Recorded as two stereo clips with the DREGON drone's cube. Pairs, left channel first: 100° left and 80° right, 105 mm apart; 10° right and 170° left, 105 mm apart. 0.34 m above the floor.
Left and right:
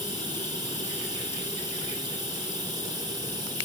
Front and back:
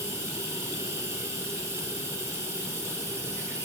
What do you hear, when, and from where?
0.0 s running water: 130° right, 3 m